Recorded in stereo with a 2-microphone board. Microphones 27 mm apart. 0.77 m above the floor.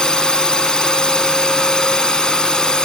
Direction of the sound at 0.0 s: 30° left (ahead or behind).